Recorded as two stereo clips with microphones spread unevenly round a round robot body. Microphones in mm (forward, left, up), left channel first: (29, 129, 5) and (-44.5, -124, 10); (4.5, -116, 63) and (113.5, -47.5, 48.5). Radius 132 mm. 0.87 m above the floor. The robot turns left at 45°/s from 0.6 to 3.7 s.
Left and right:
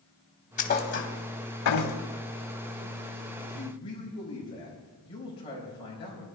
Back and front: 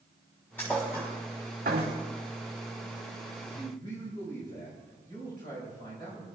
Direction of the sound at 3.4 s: 155° left.